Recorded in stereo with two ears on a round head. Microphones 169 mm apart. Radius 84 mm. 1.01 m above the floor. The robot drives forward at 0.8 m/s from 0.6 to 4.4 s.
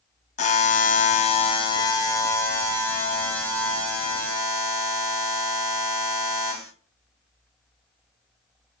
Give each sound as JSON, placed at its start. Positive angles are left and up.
{"t": 0.4, "sound": "a buzzer", "side_deg": 40, "distance_m": 0.6}